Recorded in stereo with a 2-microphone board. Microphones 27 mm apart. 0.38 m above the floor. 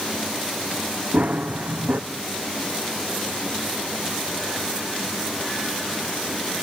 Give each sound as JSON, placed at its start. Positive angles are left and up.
{"t": 1.1, "sound": "running footsteps", "side_deg": -55, "distance_m": 1.3}